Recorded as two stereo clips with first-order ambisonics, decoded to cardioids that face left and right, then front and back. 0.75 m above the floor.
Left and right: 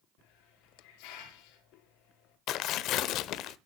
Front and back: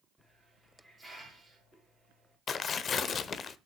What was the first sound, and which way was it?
A hiss, 90° left.